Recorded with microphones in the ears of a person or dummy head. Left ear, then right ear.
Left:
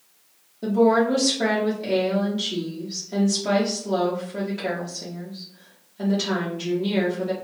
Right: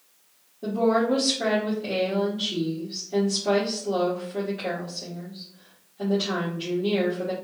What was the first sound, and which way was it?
A woman speaking, 55° left (ahead or behind).